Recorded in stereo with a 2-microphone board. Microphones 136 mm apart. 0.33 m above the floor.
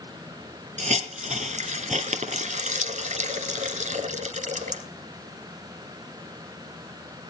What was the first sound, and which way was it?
A hiss, 65° right (ahead or behind).